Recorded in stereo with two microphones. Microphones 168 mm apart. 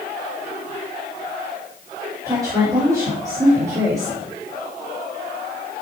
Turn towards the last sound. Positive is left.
turn(degrees=-20)  # may be behind; listen again after turning